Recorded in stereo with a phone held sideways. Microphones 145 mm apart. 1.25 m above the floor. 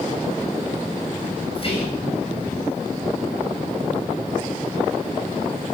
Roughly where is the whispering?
Left.